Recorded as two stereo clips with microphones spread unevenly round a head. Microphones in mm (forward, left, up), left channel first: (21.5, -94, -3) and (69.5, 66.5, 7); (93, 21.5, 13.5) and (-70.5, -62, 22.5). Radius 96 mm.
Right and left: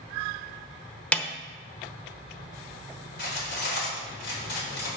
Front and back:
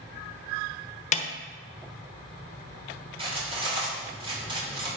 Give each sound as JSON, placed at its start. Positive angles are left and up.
{"t": 1.1, "sound": "a snare drum", "azimuth_deg": -25, "distance_m": 1.0}
{"t": 3.2, "sound": "cutlery clinking", "azimuth_deg": -95, "distance_m": 3.5}